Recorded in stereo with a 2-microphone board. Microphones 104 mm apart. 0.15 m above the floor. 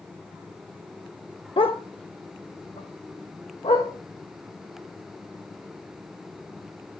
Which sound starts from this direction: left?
A dog barking, at 1.6 s.